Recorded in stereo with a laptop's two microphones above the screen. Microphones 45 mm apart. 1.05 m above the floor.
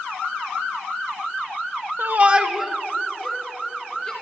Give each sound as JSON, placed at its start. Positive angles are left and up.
{"t": 2.0, "sound": "a shout", "side_deg": -55, "distance_m": 0.6}